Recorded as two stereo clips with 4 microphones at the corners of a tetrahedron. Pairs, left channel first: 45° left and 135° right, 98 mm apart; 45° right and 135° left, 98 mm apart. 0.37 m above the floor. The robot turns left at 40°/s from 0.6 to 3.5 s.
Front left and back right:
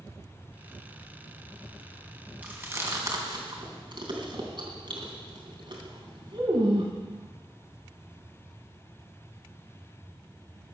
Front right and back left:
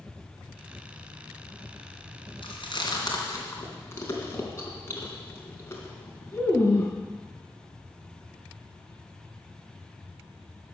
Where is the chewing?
65° right, 3 m; by 6.9 s 105° right, 3 m.